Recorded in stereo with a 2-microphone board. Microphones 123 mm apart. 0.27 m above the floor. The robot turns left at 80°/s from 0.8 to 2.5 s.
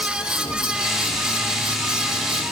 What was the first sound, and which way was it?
Only background noise.